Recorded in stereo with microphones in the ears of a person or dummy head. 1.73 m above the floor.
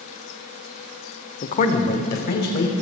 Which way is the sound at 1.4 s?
40° left (ahead or behind).